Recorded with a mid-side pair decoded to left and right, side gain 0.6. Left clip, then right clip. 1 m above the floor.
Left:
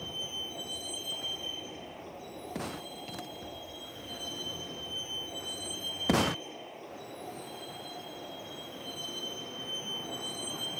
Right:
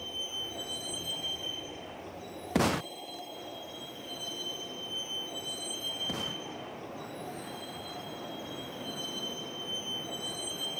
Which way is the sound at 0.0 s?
5° right.